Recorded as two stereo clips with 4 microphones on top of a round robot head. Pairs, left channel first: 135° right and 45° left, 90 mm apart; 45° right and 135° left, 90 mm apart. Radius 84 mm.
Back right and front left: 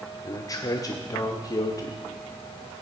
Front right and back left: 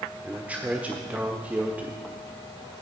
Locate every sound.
0.2 s a man speaking: 160° right, 1.4 m